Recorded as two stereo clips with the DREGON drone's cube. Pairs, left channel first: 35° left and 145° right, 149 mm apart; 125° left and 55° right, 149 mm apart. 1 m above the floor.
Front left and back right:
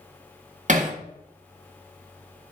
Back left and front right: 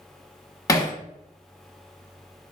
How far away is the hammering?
About 0.9 m.